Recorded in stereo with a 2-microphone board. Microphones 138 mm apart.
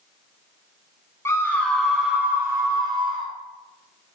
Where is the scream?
20° left (ahead or behind), 1.0 m; by 3.3 s 35° right (ahead or behind), 1.2 m.